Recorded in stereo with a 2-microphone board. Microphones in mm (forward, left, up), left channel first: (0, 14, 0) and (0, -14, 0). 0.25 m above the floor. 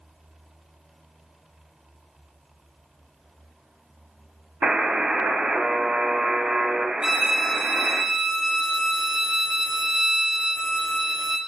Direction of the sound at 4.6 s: 40° right (ahead or behind).